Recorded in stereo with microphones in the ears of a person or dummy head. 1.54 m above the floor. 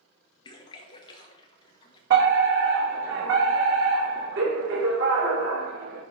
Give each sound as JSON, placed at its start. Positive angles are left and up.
{"t": 0.5, "sound": "a splash", "side_deg": 30, "distance_m": 1.4}
{"t": 2.1, "sound": "a fire alarm", "side_deg": -65, "distance_m": 2.0}